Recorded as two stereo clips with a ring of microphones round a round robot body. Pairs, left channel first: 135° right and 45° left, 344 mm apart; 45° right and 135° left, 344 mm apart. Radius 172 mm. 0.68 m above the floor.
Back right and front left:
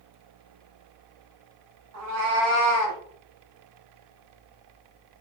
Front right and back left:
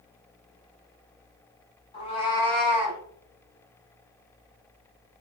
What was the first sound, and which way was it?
A cat meowing, 25° left.